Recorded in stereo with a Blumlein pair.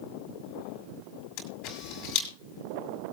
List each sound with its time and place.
1.4 s a camera shutter: 40° left, 6 m